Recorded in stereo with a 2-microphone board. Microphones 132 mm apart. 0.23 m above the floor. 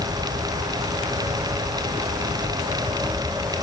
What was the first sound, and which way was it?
Only background noise.